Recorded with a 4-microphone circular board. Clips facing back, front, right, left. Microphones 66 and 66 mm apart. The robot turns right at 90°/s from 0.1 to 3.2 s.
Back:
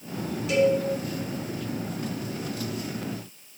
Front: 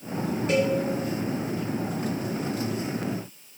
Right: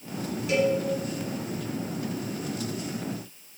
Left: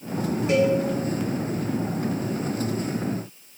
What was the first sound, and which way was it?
A cowbell, 40° left.